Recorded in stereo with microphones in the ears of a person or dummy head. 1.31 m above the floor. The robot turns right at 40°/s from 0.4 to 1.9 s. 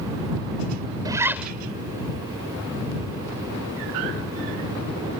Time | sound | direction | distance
1.1 | a zipper | 20° right (ahead or behind) | ?